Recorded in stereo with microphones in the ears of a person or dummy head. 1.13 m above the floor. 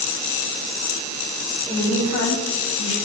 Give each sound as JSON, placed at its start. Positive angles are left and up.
{"t": 1.7, "sound": "a woman speaking", "side_deg": 15, "distance_m": 0.6}